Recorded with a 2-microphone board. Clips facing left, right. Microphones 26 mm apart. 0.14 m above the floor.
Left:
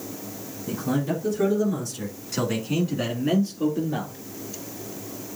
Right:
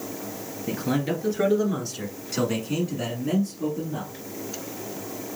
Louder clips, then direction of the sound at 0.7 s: Even; 50° right (ahead or behind).